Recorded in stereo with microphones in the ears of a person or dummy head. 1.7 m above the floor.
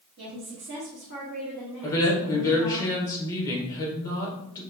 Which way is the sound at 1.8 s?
20° left (ahead or behind).